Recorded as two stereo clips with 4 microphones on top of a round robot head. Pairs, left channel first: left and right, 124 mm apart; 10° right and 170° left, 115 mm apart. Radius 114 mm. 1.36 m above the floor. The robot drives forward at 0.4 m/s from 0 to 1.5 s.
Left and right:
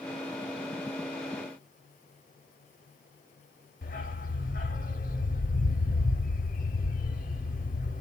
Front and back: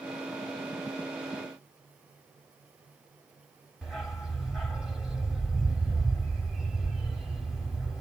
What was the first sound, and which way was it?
A dog barking, 80° left.